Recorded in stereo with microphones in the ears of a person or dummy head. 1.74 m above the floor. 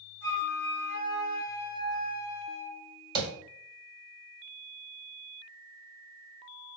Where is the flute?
40° right (ahead or behind), 1.0 m.